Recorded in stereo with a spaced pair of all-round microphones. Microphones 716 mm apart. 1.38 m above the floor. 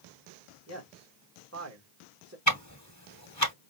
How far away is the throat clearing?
I don't hear throat clearing.